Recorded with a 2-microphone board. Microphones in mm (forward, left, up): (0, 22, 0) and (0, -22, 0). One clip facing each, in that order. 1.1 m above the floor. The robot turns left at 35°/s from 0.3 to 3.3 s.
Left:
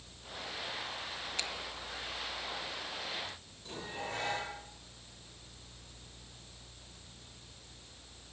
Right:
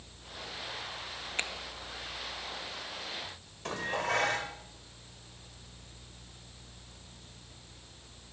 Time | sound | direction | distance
1.4 | a finger snap | 40° right (ahead or behind) | 1.5 m
3.6 | dishes clattering | 80° right | 3.5 m